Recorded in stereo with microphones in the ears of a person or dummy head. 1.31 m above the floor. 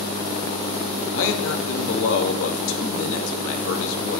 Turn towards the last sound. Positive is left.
turn(degrees=75)  # may be behind; listen again after turning